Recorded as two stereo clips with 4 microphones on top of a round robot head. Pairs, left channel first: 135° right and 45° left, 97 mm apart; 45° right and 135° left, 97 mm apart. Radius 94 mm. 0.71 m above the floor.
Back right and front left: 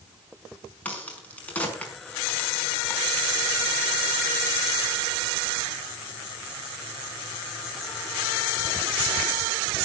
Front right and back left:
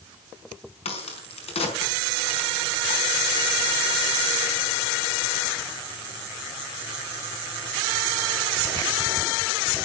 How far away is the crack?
About 5 m.